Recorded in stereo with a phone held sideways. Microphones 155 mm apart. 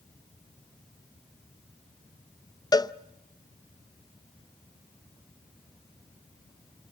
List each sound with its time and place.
2.7 s a cowbell: 25° left (ahead or behind), 0.5 m